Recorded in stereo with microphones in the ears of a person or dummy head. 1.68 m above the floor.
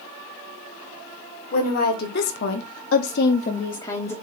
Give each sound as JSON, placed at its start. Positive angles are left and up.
{"t": 1.5, "sound": "a woman speaking", "side_deg": 50, "distance_m": 1.7}